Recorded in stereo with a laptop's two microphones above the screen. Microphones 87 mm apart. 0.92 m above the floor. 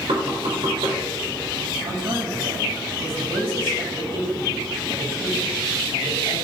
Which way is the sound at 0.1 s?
70° right (ahead or behind).